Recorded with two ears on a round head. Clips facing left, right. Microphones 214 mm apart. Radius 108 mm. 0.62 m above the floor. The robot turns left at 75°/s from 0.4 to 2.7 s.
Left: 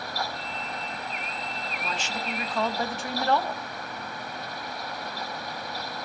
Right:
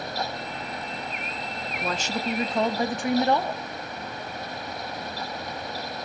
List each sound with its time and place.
1.8 s a woman speaking: 90° right, 0.7 m; by 3.6 s 155° right, 0.7 m